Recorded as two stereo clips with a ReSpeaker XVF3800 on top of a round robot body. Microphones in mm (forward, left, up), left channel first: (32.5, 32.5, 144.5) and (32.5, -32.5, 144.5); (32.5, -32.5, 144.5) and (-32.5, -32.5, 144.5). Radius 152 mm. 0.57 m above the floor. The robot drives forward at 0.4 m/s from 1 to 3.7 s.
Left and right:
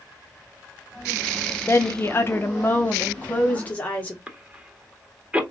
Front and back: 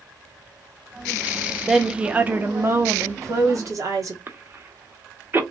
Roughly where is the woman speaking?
Left.